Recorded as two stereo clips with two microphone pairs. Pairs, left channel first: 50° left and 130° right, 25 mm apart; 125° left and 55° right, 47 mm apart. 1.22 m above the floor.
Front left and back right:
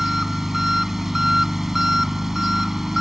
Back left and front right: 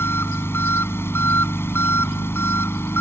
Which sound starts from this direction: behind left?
An engine running, at 0.0 s.